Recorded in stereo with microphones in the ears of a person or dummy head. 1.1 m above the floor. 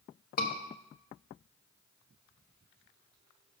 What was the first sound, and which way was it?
A scream, 40° left (ahead or behind).